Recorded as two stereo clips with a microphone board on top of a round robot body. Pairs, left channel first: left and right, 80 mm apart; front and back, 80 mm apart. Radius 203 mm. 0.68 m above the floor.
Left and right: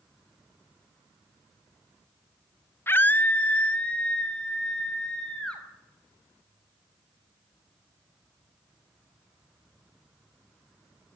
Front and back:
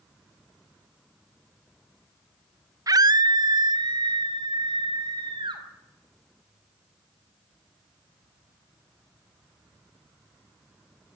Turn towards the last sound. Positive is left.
turn(degrees=170)